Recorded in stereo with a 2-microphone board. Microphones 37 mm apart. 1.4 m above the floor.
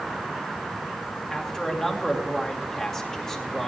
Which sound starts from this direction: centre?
A man speaking, at 1.3 s.